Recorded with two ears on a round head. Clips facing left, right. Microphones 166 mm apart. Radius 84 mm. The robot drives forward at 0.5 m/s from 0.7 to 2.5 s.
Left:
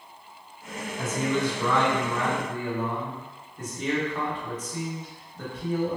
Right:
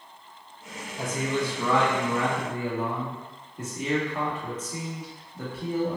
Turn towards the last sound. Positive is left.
turn(degrees=-10)  # may be behind; listen again after turning